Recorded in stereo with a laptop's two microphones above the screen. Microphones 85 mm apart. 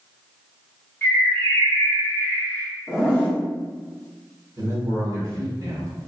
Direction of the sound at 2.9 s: 10° right (ahead or behind).